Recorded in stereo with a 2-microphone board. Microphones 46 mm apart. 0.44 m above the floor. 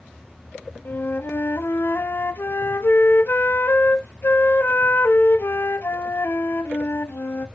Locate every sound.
0.8 s a flute: 55° left (ahead or behind), 0.9 m